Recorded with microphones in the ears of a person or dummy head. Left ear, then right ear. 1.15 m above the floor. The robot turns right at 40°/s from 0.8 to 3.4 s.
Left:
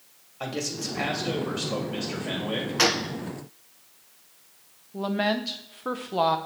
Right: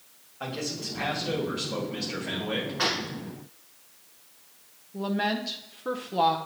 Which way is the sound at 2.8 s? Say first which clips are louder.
Left 6 dB; 70° left (ahead or behind).